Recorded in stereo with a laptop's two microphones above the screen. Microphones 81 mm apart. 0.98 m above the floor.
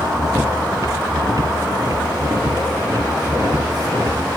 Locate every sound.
0.0 s a machine running: 45° right (ahead or behind)